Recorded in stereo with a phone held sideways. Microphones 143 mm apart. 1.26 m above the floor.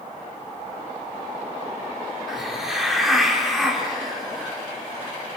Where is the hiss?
Centre (ahead or behind), 4 m.